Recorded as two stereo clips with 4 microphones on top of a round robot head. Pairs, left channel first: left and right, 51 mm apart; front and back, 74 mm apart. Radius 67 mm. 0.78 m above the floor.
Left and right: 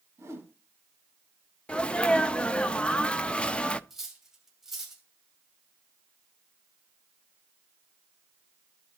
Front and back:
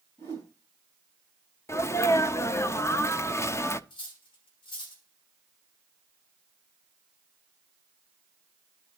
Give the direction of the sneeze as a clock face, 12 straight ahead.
11 o'clock.